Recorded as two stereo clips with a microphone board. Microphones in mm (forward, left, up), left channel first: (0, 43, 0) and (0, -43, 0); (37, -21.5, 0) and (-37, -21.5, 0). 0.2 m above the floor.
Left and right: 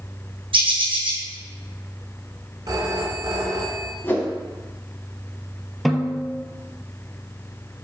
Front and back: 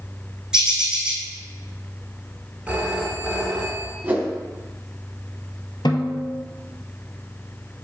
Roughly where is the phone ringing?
Right.